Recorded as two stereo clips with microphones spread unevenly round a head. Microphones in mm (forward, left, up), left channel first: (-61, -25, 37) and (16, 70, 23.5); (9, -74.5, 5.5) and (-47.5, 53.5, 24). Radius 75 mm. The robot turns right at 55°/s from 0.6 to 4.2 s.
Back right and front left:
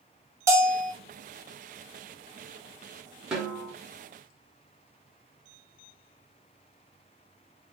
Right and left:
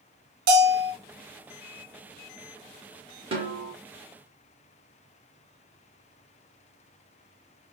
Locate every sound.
0.5 s a bell: 120° left, 0.8 m; by 0.9 s 140° left, 0.8 m
3.3 s a snare drum: 140° left, 1.0 m; by 3.7 s 160° left, 1.0 m